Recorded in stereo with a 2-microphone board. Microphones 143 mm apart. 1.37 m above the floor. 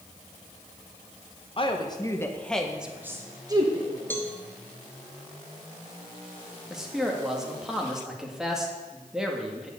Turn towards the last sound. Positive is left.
turn(degrees=-5)  # may be behind; listen again after turning